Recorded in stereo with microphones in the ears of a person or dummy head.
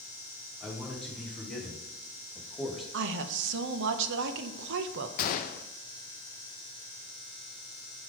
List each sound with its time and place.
0.6 s a man speaking: centre (ahead or behind), 3 m
2.9 s a woman speaking: 65° right (ahead or behind), 0.7 m
5.2 s a gunshot: 50° left (ahead or behind), 0.5 m